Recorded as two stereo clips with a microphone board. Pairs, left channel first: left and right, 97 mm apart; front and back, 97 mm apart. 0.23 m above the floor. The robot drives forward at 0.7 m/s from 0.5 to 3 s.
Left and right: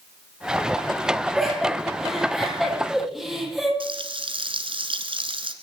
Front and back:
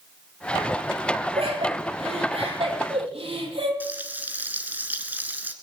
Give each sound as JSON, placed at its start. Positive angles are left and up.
{"t": 1.4, "sound": "laughter", "azimuth_deg": 180, "distance_m": 6.5}
{"t": 3.8, "sound": "frying", "azimuth_deg": -110, "distance_m": 1.5}